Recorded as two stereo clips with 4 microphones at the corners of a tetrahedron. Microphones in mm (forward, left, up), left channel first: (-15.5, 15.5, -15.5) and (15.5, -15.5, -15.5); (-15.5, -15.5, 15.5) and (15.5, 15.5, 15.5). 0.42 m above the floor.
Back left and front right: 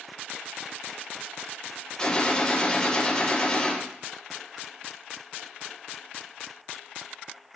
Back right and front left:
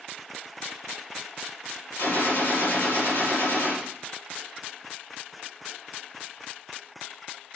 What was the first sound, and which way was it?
A gunshot, 155° right.